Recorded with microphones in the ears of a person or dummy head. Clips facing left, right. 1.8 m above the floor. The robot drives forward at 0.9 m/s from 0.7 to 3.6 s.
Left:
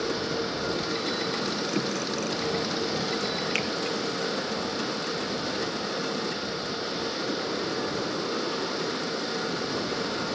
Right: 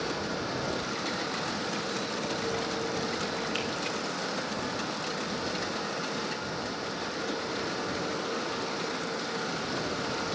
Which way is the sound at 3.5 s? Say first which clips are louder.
Left 3 dB; 35° left (ahead or behind).